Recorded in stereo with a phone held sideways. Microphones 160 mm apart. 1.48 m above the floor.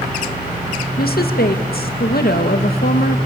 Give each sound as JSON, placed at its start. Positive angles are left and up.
{"t": 1.0, "sound": "a woman speaking", "side_deg": 85, "distance_m": 1.9}